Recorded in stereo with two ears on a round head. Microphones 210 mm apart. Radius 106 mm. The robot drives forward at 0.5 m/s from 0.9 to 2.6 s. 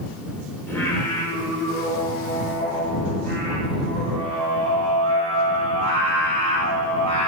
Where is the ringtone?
No ringtone in this recording.